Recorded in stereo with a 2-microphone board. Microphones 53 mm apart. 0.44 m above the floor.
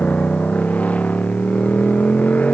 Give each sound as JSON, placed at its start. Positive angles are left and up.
{"t": 0.0, "sound": "a motorcycle", "side_deg": 25}